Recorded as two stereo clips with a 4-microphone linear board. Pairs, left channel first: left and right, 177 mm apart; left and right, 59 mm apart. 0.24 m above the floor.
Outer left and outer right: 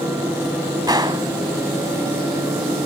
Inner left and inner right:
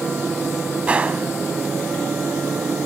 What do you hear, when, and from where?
0.9 s a gunshot: 25° right (ahead or behind), 1.0 m